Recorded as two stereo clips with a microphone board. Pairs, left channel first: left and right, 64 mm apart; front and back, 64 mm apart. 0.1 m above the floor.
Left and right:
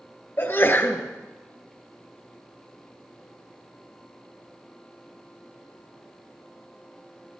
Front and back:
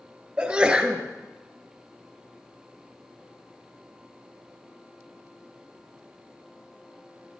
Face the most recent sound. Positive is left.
turn(degrees=115)